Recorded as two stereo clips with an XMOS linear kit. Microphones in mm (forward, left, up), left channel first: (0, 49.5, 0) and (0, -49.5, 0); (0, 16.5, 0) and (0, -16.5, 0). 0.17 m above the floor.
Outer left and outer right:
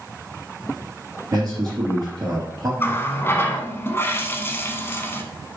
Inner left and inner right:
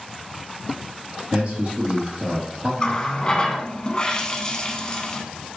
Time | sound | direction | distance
1.3 | a man speaking | 35° right (ahead or behind) | 3 m
2.8 | a running tap | 25° left (ahead or behind) | 0.8 m